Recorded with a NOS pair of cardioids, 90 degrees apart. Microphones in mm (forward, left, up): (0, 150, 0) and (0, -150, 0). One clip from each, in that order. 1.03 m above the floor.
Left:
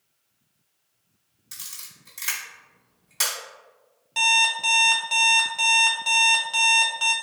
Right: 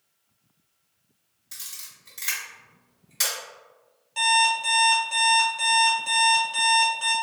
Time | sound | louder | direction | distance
1.5 | a camera shutter | even | 20° left | 1.8 m
4.2 | an alarm clock | left 1 dB | 35° left | 0.7 m